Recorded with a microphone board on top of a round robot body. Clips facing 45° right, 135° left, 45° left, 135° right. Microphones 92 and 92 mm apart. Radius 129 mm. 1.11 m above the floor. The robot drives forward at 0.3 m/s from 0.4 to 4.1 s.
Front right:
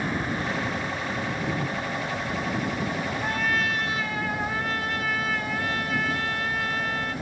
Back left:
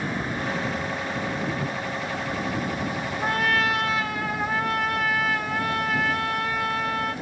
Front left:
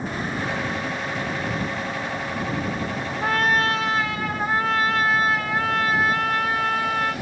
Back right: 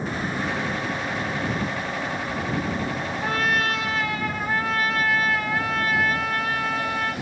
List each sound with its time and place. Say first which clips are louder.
3.2 s a trumpet: back left 5 dB, front left 3 dB; 95° left, 0.8 m; by 7.1 s 110° left, 0.8 m